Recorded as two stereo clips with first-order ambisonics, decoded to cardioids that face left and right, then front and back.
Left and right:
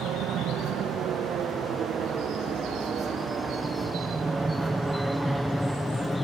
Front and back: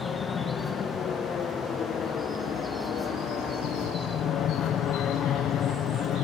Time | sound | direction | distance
0.0 | an aircraft | 60° right | ?